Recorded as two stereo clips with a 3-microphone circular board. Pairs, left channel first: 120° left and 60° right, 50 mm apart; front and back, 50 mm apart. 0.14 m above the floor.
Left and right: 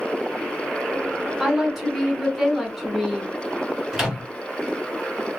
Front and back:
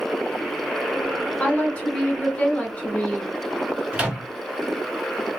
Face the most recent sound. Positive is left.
turn(degrees=-140)